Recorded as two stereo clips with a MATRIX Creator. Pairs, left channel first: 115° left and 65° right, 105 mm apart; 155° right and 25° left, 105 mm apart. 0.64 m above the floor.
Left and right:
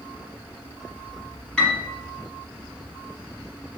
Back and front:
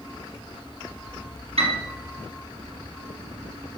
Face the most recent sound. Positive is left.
turn(degrees=35)